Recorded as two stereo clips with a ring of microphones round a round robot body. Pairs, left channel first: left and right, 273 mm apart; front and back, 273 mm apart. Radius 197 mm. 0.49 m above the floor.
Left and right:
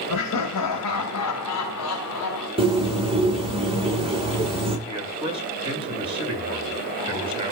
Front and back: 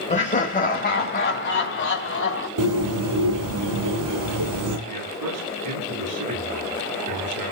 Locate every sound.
0.1 s laughter: 65° left, 2.5 m; by 2.5 s 45° left, 3.5 m
2.6 s a bird: 160° right, 8.5 m
4.9 s a man speaking: 160° right, 9.5 m